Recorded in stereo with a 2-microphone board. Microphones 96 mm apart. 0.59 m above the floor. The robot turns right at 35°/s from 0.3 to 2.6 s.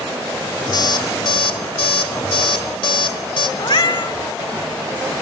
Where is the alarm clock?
50° left (ahead or behind), 1.1 m; by 3.5 s 65° left (ahead or behind), 1.1 m.